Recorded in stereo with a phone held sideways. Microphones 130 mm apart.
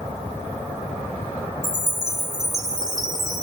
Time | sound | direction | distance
1.6 | a chime | 30° right (ahead or behind) | 2 m